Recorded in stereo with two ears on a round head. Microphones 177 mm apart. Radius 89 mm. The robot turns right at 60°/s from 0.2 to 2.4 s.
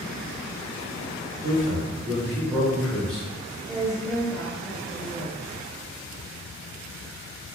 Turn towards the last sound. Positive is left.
turn(degrees=0)  # may be behind; listen again after turning